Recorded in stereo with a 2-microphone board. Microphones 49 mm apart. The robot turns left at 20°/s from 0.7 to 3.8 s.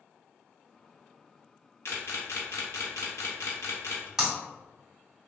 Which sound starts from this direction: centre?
Breaking glass, at 4.2 s.